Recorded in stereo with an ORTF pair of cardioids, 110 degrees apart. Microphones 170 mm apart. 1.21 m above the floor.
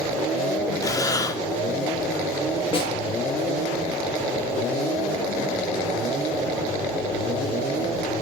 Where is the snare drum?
35° left, 8 m.